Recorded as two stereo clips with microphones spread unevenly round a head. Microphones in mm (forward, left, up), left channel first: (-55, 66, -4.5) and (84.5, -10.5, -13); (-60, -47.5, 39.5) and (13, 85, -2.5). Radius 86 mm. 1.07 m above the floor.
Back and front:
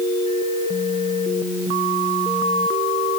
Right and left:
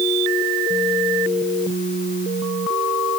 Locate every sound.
Only background noise.